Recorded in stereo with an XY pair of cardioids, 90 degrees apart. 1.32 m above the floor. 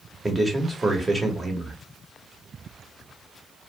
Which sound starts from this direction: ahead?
A man speaking, at 0.2 s.